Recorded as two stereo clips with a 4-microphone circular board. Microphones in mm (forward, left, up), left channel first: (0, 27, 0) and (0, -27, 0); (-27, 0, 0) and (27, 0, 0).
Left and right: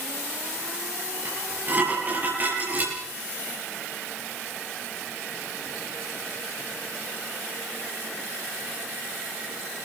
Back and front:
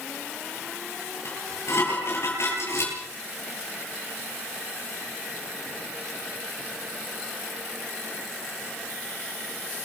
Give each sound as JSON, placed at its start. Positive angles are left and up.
{"t": 1.2, "sound": "dishes clattering", "azimuth_deg": -145, "distance_m": 9.5}